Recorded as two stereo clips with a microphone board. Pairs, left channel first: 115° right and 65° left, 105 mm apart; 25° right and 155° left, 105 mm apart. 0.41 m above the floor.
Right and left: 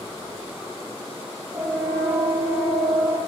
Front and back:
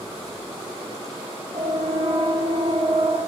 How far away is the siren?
About 10 m.